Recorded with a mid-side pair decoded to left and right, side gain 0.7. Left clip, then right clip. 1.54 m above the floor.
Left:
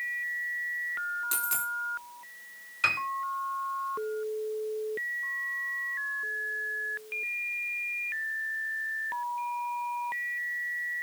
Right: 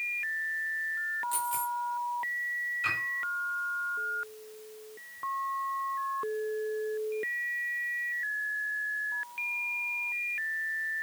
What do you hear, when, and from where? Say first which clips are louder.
1.3 s a dropped coin: even; 60° left, 5 m
2.8 s a piano: left 6 dB; 55° left, 4.5 m